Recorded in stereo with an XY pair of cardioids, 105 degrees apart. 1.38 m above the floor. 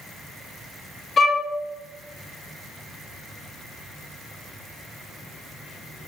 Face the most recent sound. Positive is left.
turn(degrees=40)